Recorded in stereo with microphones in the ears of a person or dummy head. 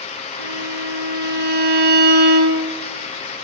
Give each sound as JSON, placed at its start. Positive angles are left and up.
{"t": 0.4, "sound": "a violin", "side_deg": -50, "distance_m": 2.5}